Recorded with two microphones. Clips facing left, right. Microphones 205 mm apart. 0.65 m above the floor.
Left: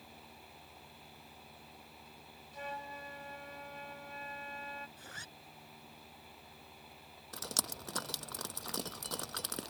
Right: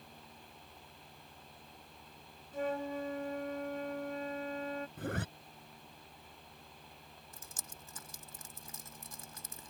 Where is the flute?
55° right (ahead or behind).